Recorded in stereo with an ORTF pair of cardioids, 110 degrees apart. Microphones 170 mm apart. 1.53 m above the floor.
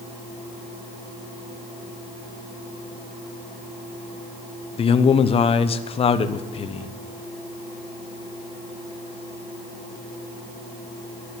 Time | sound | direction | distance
4.8 | a man speaking | 35° left | 1.0 m